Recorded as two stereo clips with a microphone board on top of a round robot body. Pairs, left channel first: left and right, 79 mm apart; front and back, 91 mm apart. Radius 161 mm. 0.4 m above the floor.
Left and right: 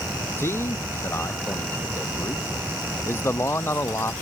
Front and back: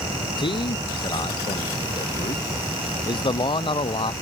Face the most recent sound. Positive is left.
turn(degrees=30)